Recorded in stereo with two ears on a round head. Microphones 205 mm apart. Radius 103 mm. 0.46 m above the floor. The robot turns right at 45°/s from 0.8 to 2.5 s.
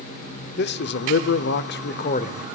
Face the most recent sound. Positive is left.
turn(degrees=145)